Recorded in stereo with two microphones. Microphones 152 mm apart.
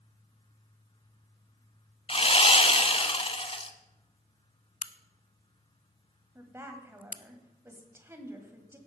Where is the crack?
60° left (ahead or behind), 0.5 m.